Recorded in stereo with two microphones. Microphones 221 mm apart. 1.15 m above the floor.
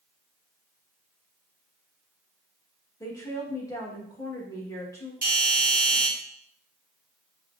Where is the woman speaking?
15° left (ahead or behind), 1.2 m.